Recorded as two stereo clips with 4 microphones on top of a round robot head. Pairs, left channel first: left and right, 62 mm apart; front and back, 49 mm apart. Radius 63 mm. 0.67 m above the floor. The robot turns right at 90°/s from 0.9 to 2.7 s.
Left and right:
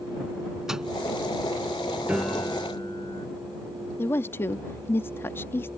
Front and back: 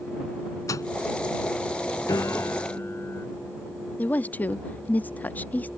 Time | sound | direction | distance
0.7 | a microwave | 5° right | ?
2.1 | a piano | 15° right | ?
4.0 | a woman speaking | 45° left | ?